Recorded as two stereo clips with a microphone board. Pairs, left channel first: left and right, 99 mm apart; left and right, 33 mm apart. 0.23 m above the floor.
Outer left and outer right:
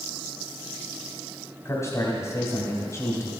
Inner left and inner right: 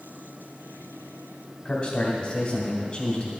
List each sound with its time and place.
1.6 s a man speaking: 30° left (ahead or behind), 1.7 m